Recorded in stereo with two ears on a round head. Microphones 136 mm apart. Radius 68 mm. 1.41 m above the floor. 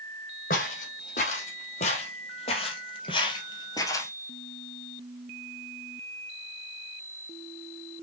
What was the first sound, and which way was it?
Footsteps, 55° left (ahead or behind).